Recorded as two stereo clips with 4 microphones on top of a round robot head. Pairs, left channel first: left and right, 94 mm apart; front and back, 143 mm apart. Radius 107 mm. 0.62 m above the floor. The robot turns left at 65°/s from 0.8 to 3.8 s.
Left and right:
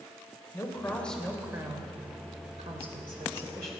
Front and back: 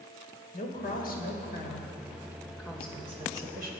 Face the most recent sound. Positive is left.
turn(degrees=-170)